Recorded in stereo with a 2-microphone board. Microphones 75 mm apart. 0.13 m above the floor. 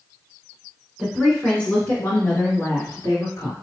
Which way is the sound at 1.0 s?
5° left (ahead or behind).